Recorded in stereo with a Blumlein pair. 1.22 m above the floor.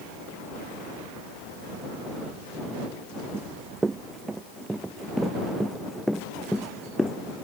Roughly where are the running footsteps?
Ahead.